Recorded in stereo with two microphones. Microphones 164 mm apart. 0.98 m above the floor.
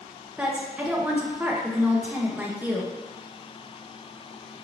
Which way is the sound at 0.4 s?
10° right (ahead or behind).